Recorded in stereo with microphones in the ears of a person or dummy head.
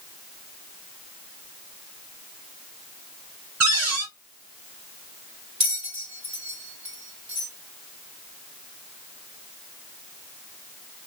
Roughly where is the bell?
Right.